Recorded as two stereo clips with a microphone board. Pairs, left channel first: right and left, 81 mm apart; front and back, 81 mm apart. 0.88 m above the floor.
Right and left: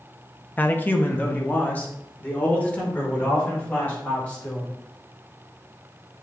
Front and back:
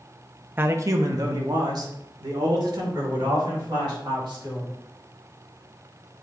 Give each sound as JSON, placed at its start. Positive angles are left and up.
{"t": 0.6, "sound": "a man speaking", "azimuth_deg": -140, "distance_m": 0.7}